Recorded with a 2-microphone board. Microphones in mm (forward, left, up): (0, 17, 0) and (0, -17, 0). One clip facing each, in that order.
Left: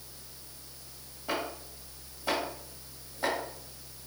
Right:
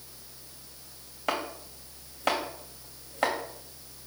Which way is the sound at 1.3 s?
85° right.